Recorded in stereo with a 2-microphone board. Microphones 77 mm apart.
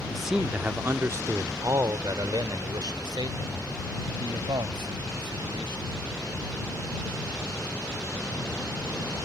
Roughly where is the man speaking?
Centre.